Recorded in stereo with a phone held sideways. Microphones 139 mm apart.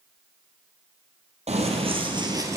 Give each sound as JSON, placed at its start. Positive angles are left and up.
{"t": 1.5, "sound": "running footsteps", "side_deg": -55, "distance_m": 1.5}